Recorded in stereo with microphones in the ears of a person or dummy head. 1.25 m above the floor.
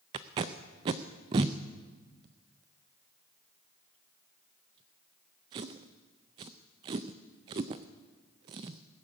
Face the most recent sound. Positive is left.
turn(degrees=-30)  # may be behind; listen again after turning